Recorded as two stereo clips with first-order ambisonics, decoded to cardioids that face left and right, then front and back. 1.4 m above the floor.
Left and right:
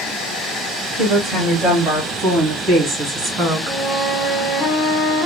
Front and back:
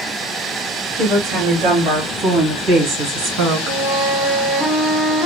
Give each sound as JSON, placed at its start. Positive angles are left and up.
{"t": 1.0, "sound": "a woman speaking", "azimuth_deg": -175, "distance_m": 3.0}
{"t": 3.7, "sound": "a flute", "azimuth_deg": 175, "distance_m": 3.0}